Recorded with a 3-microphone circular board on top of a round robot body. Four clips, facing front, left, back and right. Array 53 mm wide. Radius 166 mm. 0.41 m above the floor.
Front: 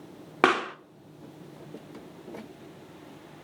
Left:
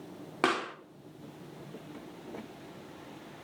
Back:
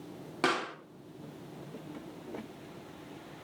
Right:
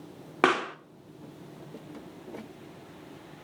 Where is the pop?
30° right, 1.6 m.